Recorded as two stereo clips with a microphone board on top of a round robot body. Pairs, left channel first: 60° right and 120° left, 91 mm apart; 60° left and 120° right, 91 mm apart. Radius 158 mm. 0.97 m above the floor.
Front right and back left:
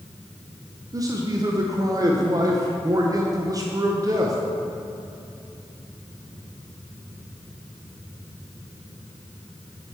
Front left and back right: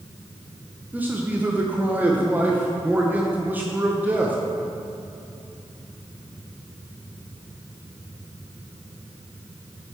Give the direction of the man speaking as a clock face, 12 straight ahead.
6 o'clock.